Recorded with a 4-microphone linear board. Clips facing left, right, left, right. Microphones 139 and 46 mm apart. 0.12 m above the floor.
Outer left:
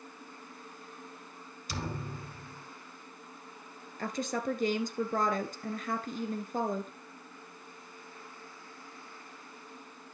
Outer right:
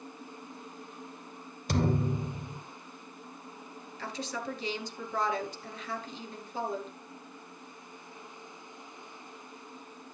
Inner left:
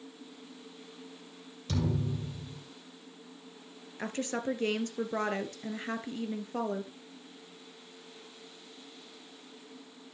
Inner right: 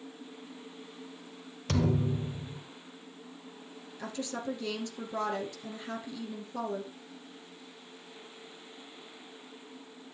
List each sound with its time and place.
1.7 s a thud: 55° right (ahead or behind), 1.4 m
4.0 s a woman speaking: 50° left (ahead or behind), 1.6 m